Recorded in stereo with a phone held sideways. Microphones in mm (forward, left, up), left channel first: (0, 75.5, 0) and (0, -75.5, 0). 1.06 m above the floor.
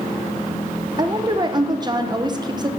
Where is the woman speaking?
30° right (ahead or behind), 0.7 m.